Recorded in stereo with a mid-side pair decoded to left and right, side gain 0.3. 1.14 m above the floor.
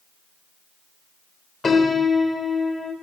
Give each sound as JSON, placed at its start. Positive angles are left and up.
{"t": 1.6, "sound": "a piano", "azimuth_deg": 50, "distance_m": 3.0}